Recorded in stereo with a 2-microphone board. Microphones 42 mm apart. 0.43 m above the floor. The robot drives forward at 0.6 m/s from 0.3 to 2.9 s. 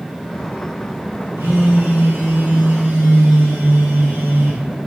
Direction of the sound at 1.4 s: 75° right (ahead or behind).